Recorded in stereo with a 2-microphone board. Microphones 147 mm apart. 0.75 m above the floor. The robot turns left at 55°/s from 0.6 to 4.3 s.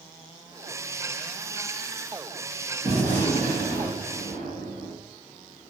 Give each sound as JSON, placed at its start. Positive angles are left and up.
{"t": 2.8, "sound": "a gunshot", "azimuth_deg": -40, "distance_m": 1.3}